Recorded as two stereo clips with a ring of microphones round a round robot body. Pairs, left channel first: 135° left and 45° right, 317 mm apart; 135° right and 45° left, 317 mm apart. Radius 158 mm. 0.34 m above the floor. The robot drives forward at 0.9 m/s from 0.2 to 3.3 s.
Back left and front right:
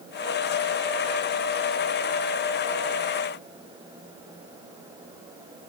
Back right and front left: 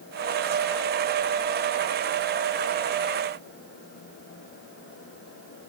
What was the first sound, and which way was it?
Only background noise.